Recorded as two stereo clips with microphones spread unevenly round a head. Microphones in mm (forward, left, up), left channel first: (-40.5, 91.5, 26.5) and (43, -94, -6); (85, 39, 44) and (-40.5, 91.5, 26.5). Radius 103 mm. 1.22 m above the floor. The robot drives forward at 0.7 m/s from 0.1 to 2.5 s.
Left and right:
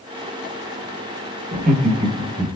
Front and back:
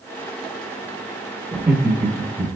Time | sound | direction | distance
1.5 | laughter | 115° right | 0.9 m